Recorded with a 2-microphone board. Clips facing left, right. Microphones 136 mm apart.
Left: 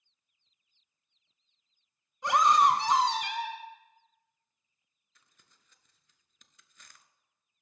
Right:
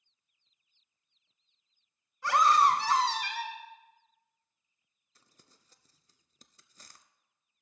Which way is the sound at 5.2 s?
35° right (ahead or behind).